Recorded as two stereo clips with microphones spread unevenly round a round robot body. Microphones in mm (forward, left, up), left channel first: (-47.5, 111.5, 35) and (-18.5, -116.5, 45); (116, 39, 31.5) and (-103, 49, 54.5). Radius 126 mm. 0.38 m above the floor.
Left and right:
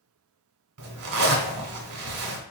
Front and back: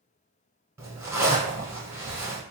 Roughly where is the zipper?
Right.